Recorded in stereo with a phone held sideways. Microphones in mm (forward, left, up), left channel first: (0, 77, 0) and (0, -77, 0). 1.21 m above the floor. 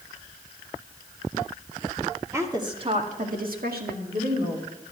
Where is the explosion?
No explosion in this recording.